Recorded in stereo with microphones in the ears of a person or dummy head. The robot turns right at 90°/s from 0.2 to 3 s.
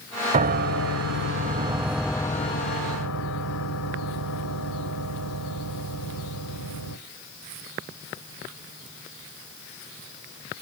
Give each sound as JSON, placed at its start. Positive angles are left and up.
{"t": 0.3, "sound": "a piano", "azimuth_deg": -150, "distance_m": 0.7}